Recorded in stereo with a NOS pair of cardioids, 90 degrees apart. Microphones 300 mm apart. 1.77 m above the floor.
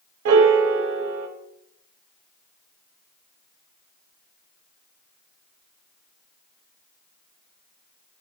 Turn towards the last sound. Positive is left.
turn(degrees=-50)